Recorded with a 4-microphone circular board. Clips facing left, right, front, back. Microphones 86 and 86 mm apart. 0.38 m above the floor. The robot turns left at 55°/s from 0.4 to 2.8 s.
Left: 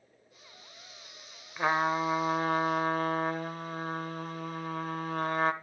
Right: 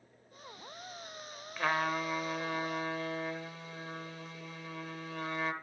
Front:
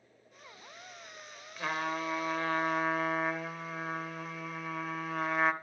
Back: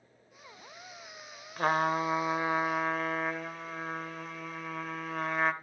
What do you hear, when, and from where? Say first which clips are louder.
1.6 s a trumpet: left 4 dB, back 7 dB; 155° left, 0.7 m; by 5.5 s 90° left, 0.7 m